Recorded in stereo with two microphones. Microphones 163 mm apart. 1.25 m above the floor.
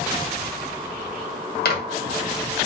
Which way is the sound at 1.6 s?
80° left.